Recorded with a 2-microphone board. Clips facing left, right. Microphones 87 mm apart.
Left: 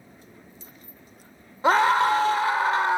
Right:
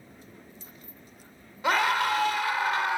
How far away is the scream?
About 1.7 m.